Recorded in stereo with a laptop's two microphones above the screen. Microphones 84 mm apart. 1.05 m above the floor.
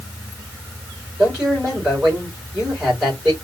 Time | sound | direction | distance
1.2 | a man speaking | 15° right (ahead or behind) | 3 m